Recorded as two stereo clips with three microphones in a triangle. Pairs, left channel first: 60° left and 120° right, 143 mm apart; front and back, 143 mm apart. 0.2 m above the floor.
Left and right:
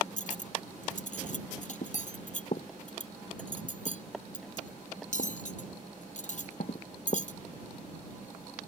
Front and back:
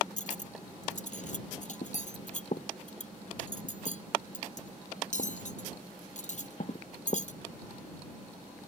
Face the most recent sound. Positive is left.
turn(degrees=30)